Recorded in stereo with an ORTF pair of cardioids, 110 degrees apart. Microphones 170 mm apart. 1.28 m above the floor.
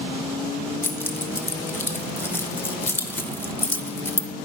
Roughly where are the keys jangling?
Ahead.